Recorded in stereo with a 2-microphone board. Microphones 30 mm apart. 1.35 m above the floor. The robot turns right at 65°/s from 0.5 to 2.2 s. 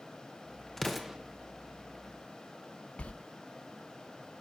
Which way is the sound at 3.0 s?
50° left (ahead or behind).